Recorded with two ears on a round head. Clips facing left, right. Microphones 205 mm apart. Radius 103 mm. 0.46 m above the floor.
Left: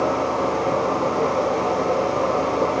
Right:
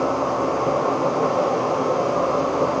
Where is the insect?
15° right (ahead or behind), 3.5 m.